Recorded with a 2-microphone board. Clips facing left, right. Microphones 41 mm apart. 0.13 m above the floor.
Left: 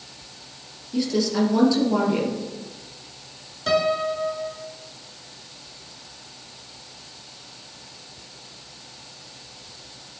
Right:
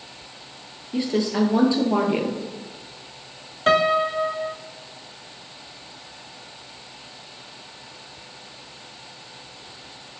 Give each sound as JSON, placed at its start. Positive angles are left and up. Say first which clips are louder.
{"t": 0.9, "sound": "a woman speaking", "louder": "even", "side_deg": -30, "distance_m": 2.0}
{"t": 3.7, "sound": "a piano", "louder": "right 3 dB", "side_deg": -45, "distance_m": 0.6}